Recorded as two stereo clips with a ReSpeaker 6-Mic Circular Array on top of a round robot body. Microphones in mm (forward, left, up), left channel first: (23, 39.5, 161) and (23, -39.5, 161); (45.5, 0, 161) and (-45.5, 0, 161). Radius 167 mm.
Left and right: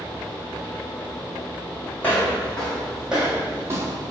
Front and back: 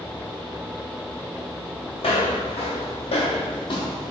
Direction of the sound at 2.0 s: 20° left.